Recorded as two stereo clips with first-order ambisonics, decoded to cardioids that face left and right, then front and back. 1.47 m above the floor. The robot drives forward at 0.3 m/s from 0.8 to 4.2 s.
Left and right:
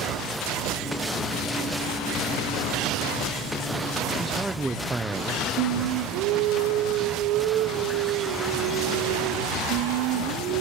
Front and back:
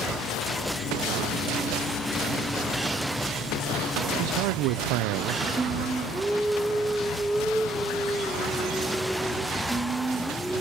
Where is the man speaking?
170° right, 0.8 m.